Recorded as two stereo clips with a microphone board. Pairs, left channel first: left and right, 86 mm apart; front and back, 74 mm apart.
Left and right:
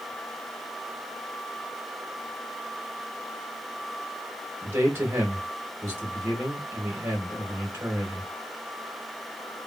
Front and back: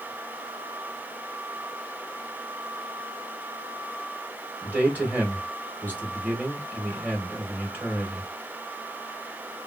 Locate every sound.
4.6 s a man speaking: 130° right, 1.6 m